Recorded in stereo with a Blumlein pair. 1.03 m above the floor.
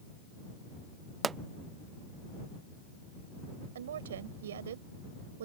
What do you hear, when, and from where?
1.2 s a pop: 20° right
3.8 s a woman speaking: 60° right